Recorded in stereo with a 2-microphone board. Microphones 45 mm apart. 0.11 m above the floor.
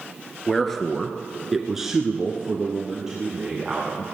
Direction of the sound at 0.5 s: 5° left (ahead or behind).